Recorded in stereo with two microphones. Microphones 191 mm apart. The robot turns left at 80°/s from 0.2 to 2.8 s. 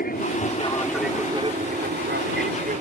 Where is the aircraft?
50° left (ahead or behind); by 2.8 s 40° right (ahead or behind).